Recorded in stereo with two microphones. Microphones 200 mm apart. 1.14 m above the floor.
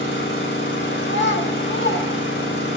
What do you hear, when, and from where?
0.0 s an engine running: 85° left, 3.5 m
1.0 s a child speaking: 70° left (ahead or behind), 1.7 m